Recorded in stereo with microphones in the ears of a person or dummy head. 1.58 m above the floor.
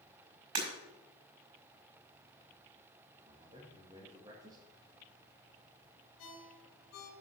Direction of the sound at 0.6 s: 55° right (ahead or behind).